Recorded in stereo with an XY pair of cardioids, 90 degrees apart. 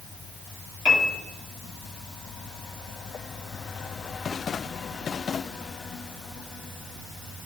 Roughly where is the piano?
Ahead left.